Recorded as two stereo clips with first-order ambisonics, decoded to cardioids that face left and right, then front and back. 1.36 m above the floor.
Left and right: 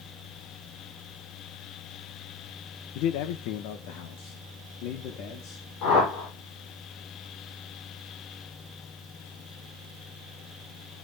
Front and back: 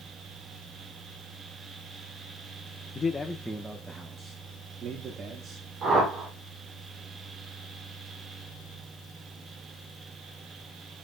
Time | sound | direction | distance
3.0 | a man speaking | 65° left | 0.9 m
5.8 | a whoosh | 115° left | 7 m